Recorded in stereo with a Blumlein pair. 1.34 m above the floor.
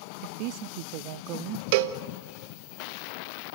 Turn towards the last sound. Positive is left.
turn(degrees=-50)